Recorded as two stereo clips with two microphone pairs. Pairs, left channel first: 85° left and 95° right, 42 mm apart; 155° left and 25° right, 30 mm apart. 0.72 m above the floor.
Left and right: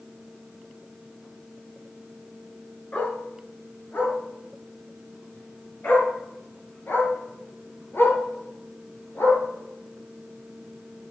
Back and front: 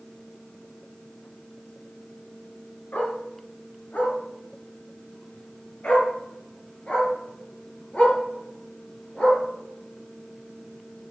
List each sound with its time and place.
2.9 s a dog barking: 135° left, 4 m; by 9.4 s 100° left, 5.5 m